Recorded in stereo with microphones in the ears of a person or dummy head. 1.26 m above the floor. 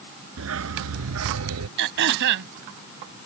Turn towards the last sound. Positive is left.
turn(degrees=-65)  # may be behind; listen again after turning